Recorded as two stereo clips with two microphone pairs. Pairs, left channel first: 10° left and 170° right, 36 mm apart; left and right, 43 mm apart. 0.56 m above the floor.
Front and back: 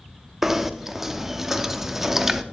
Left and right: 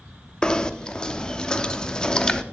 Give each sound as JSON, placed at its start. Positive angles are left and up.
{"t": 0.4, "sound": "knocking", "azimuth_deg": 135, "distance_m": 0.6}